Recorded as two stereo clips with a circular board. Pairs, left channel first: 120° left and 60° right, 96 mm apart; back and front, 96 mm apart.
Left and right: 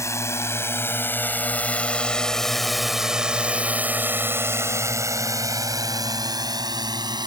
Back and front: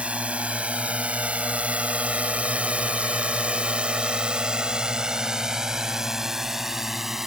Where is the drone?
75° left; by 7.3 s 85° right.